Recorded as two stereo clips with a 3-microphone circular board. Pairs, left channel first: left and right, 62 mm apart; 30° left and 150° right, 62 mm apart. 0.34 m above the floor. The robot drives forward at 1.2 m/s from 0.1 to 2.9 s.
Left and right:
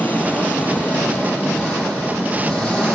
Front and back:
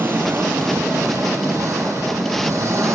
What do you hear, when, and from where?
0.0 s an engine running: 150° left, 5 m; by 3.0 s 165° left, 8 m